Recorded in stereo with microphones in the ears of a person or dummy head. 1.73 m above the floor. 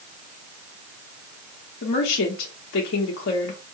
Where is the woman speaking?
65° left (ahead or behind), 0.7 m.